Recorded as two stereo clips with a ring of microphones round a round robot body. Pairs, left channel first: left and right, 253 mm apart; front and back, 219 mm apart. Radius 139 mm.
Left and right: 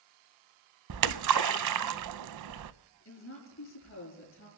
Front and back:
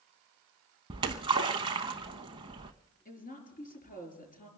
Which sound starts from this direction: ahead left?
A woman speaking, at 3.0 s.